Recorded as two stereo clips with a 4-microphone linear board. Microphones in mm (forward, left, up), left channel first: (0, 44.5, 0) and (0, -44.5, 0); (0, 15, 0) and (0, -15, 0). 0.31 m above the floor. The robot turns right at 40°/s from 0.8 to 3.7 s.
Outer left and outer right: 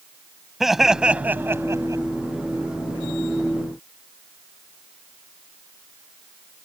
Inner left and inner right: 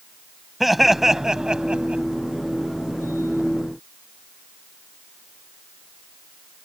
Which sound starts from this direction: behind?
Laughter, at 0.6 s.